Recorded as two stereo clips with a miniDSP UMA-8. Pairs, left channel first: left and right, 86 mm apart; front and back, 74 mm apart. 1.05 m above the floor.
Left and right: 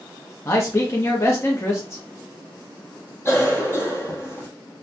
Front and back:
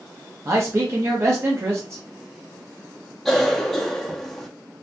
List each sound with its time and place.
0.5 s a man speaking: 140° left, 0.7 m
3.2 s a cough: 80° left, 0.6 m